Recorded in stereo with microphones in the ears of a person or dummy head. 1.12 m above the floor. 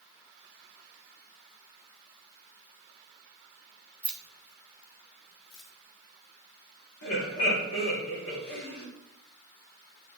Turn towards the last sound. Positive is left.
turn(degrees=80)